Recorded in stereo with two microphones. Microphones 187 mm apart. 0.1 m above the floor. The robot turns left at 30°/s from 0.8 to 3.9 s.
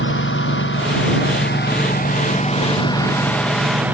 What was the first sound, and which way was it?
A lawn mower, 85° left.